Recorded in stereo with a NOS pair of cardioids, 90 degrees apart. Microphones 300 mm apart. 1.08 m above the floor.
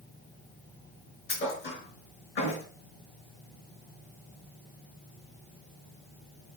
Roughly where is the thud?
Ahead left.